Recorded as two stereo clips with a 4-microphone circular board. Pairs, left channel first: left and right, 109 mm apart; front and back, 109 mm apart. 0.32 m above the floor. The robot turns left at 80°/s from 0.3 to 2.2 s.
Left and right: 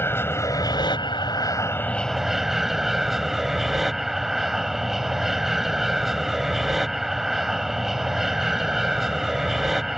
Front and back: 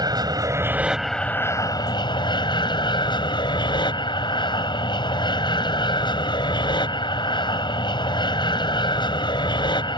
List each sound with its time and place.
0.0 s an aircraft: 150° left; by 10.0 s 5° right